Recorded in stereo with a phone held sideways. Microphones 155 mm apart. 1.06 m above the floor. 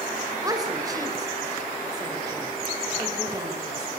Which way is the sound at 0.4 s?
25° right (ahead or behind).